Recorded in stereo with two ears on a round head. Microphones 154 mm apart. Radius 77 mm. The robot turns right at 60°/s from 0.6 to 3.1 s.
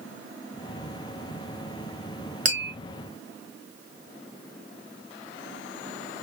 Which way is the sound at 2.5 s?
50° right (ahead or behind).